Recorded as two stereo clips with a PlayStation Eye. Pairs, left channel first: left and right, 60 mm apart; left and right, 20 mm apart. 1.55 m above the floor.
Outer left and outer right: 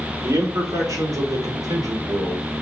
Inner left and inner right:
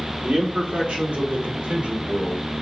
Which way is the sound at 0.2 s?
65° right (ahead or behind).